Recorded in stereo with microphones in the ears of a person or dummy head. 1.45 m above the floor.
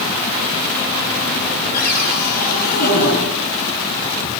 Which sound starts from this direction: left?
A cupboard door, at 1.7 s.